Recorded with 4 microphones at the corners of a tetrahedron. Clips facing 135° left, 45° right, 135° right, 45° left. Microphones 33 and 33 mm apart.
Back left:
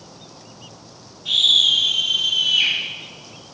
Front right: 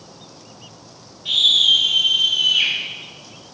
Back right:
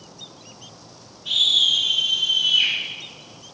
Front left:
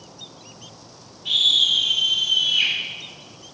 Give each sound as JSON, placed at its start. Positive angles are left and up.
{"t": 1.2, "sound": "a scream", "azimuth_deg": 20, "distance_m": 2.0}